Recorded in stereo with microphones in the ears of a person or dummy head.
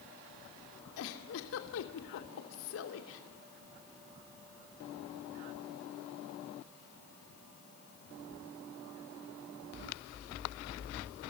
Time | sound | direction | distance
1.0 | a giggle | 70° left (ahead or behind) | 2.5 m